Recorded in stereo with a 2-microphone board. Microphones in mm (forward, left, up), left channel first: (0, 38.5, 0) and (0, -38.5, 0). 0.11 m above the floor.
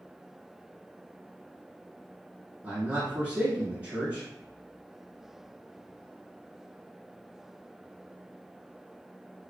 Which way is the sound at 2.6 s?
20° right (ahead or behind).